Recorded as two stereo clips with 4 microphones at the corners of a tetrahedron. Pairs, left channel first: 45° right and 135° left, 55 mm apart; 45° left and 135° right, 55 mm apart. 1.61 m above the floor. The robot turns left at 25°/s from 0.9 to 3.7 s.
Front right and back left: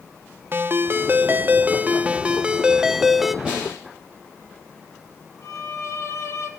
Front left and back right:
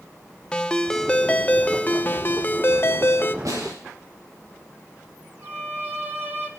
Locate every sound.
0.5 s a ringtone: 115° left, 0.8 m; by 3.4 s 55° left, 0.8 m
3.5 s a snare drum: 150° right, 9 m; by 3.8 s 155° right, 9 m
5.4 s a violin: 75° right, 2.5 m